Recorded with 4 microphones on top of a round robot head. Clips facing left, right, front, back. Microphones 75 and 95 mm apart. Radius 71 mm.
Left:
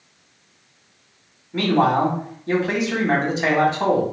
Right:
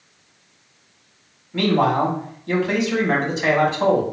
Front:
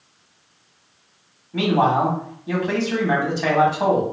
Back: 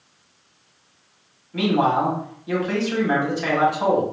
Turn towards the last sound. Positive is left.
turn(degrees=50)